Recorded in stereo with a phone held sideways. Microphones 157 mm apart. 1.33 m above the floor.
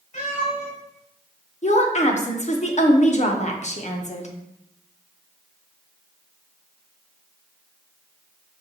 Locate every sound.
0.1 s a cat meowing: 45° left (ahead or behind), 1.8 m
1.6 s a woman speaking: 50° left (ahead or behind), 0.7 m